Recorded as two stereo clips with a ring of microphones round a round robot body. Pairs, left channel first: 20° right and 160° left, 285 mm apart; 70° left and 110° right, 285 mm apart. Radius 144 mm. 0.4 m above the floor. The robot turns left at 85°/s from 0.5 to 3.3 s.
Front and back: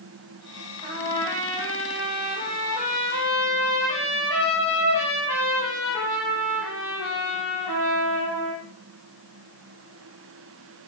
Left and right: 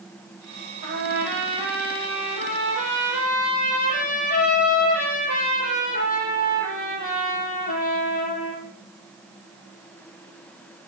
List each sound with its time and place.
0.8 s a trumpet: 145° right, 9.5 m; by 8.6 s 5° left, 9.5 m